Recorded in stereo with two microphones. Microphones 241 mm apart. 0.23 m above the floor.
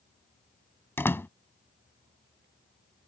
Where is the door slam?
10° left (ahead or behind).